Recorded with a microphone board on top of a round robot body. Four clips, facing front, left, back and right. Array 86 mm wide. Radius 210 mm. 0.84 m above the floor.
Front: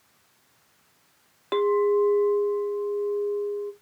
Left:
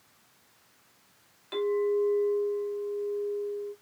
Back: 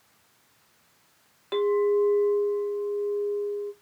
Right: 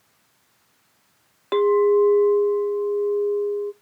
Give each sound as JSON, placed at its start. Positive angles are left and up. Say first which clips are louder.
{"t": 1.5, "sound": "a clink", "louder": "right 10 dB, front 1 dB", "azimuth_deg": -65, "distance_m": 0.5}